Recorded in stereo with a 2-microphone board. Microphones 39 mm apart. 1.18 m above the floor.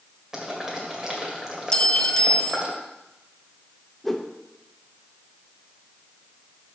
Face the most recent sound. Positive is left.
turn(degrees=5)  # may be behind; listen again after turning